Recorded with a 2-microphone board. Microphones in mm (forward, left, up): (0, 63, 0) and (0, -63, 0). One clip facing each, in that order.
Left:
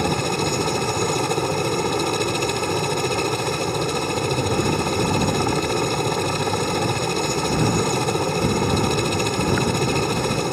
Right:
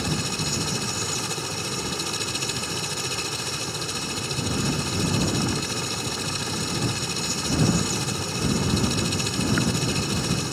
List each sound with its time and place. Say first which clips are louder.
0.0 s a helicopter: left 8 dB; 65° left (ahead or behind)